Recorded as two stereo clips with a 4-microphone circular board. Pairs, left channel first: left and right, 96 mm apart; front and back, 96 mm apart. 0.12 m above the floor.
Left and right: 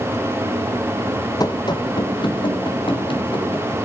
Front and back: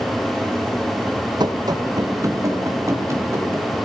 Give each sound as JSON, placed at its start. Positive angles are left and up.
{"t": 1.4, "sound": "running footsteps", "azimuth_deg": 140, "distance_m": 1.0}